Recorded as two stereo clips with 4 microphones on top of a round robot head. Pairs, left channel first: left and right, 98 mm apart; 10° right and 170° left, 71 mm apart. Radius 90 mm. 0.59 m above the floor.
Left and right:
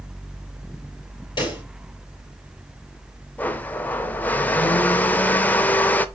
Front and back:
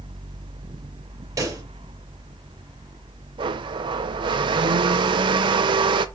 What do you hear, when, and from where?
1.4 s a pop: 130° left, 4.5 m
3.4 s a blender: 165° left, 0.6 m